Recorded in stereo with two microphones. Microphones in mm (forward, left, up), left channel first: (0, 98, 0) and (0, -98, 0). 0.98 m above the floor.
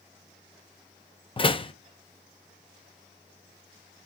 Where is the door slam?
25° left (ahead or behind), 0.7 m.